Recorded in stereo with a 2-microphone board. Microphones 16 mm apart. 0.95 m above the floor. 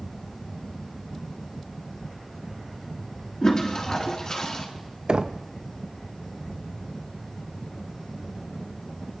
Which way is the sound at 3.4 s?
40° left (ahead or behind).